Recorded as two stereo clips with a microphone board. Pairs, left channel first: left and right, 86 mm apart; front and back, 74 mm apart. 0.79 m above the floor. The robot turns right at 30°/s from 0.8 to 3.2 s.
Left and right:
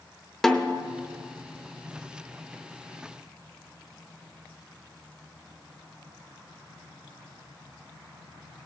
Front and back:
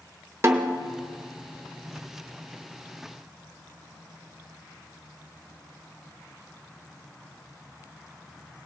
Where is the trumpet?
I don't hear a trumpet.